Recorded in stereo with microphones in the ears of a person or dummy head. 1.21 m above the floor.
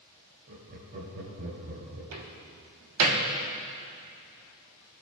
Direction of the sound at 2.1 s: 80° right.